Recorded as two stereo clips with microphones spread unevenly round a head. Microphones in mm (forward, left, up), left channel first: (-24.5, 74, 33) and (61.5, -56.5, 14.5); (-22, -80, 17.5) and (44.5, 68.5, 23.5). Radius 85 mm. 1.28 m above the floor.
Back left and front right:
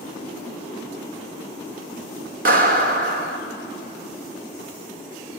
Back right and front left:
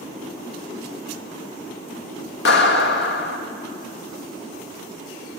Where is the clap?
95° right, 1.8 m.